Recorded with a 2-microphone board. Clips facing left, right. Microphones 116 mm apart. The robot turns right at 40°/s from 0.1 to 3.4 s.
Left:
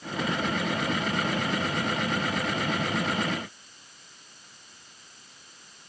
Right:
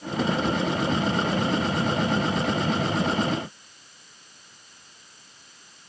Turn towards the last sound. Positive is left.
No sound to turn to.